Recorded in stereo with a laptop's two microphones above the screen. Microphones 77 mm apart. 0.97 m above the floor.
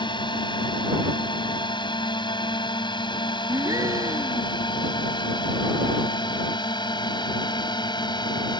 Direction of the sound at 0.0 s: 80° left.